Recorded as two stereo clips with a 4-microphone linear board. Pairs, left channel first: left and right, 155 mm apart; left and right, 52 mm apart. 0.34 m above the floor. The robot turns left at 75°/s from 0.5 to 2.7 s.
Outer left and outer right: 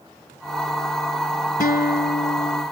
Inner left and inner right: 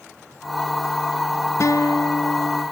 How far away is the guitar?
About 1.1 m.